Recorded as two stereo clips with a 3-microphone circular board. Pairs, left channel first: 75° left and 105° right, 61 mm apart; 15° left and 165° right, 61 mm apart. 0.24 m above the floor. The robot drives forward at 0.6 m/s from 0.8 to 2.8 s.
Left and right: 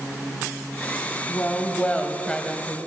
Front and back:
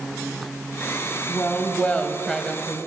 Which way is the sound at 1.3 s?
25° left.